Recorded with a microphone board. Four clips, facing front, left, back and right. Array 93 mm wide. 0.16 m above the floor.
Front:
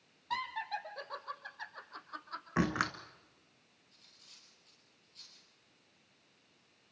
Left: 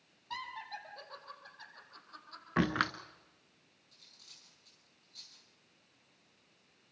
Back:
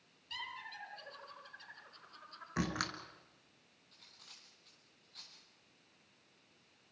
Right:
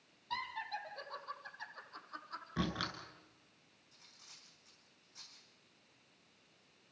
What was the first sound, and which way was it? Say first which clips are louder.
Laughter: right 1 dB, front 9 dB; 5° left.